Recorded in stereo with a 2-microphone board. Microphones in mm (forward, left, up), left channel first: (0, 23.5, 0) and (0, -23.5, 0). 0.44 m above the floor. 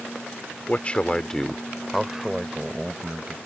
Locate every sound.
0.7 s a man speaking: 30° left (ahead or behind); by 3.4 s 20° right (ahead or behind)